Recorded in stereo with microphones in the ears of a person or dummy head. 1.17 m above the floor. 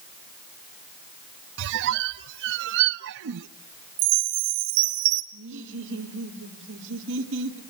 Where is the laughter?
70° right (ahead or behind), 3 m.